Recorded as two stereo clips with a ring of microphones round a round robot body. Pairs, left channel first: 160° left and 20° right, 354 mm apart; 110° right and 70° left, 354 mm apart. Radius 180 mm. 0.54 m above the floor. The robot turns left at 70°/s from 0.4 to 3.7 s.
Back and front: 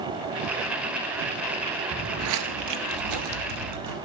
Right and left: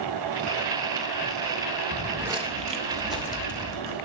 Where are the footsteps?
55° right, 0.6 m.